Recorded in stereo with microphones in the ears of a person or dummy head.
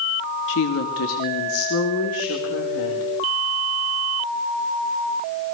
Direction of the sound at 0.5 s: 75° left (ahead or behind).